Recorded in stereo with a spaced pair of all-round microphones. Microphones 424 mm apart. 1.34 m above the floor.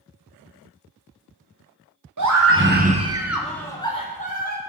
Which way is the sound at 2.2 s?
50° right (ahead or behind).